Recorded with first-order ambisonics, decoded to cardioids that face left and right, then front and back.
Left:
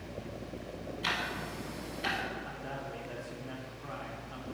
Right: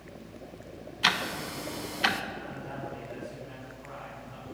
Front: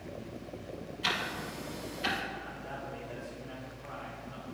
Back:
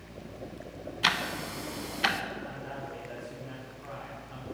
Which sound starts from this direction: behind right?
Ticking, at 1.0 s.